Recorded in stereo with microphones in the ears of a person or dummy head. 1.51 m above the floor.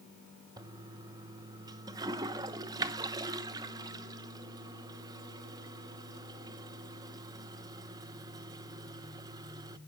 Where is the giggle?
No giggle in this recording.